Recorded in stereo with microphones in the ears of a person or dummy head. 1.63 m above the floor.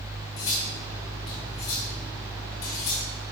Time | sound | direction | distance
0.4 | cutlery clinking | 20° left (ahead or behind) | 0.9 m